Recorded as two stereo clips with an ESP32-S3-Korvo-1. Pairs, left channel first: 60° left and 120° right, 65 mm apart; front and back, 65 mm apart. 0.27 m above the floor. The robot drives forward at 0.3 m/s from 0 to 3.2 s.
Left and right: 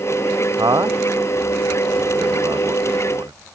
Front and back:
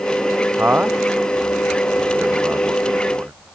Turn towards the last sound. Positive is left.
turn(degrees=-120)